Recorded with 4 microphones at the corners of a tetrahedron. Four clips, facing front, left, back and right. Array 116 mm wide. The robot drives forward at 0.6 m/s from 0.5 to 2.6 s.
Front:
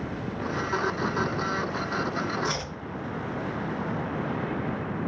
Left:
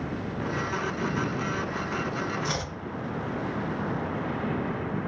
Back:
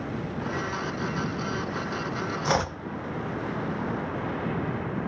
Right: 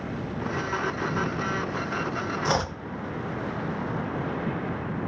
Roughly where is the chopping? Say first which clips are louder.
Right 6 dB, back 6 dB; behind right.